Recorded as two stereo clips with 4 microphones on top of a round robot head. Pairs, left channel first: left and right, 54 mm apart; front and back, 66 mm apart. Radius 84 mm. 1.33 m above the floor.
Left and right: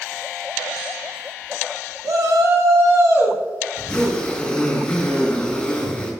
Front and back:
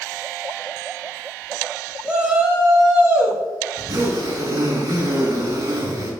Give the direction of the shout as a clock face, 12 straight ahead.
4 o'clock.